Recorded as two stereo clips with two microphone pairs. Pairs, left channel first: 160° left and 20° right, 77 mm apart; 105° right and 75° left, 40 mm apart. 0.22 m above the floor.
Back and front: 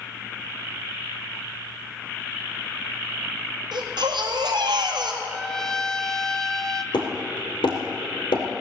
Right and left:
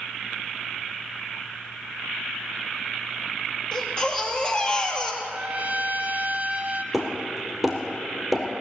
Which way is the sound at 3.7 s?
40° right.